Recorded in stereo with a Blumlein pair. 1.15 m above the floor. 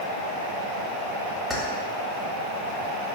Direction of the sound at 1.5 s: Straight ahead.